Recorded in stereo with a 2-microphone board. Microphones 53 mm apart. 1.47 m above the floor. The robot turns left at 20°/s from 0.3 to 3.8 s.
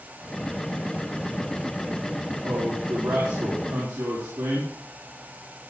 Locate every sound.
2.4 s a man speaking: 75° right (ahead or behind), 4 m